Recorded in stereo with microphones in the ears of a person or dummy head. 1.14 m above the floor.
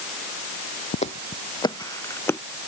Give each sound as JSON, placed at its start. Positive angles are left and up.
{"t": 0.9, "sound": "footsteps", "side_deg": 40}